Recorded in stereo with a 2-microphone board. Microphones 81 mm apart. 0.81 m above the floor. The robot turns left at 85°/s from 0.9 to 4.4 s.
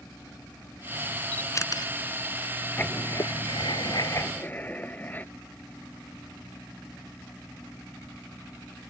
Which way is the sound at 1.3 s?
20° left (ahead or behind).